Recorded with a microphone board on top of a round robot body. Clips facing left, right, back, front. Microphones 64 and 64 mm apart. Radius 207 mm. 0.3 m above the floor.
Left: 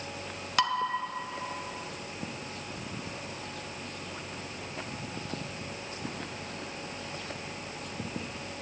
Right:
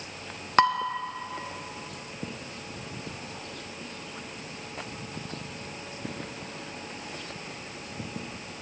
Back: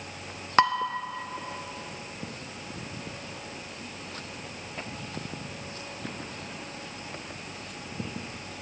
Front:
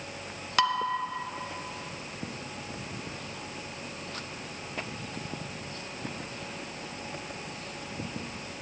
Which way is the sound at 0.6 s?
130° right.